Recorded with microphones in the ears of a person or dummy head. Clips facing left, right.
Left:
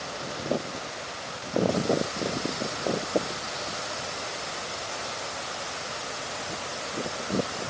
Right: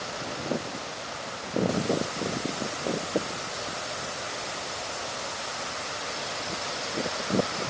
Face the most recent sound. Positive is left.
No sound to turn to.